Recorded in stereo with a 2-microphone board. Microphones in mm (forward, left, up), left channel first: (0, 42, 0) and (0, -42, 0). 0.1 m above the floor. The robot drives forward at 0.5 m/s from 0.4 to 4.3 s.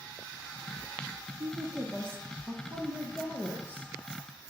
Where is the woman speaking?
30° right (ahead or behind), 1.2 m; by 3.9 s 20° right (ahead or behind), 1.8 m.